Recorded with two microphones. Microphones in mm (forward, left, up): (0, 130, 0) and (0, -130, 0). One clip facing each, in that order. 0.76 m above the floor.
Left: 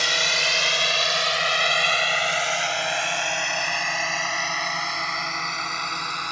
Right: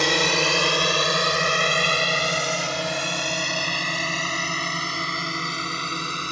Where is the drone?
65° right (ahead or behind); by 6.3 s 35° right (ahead or behind).